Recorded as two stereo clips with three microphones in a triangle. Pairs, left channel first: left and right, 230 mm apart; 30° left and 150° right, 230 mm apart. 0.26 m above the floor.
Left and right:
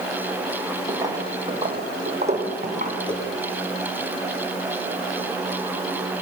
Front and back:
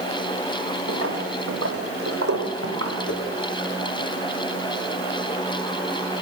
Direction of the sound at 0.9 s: 165° right.